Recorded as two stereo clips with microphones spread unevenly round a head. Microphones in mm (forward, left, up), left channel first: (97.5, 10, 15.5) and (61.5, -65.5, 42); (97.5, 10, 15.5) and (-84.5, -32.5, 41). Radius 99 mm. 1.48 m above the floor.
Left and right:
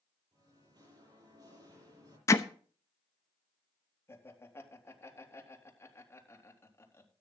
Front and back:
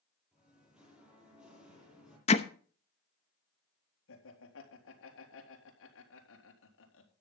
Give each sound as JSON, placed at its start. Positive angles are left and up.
{"t": 0.3, "sound": "singing", "azimuth_deg": -80, "distance_m": 8.0}
{"t": 2.3, "sound": "hammering", "azimuth_deg": 20, "distance_m": 0.7}
{"t": 4.1, "sound": "laughter", "azimuth_deg": 5, "distance_m": 3.5}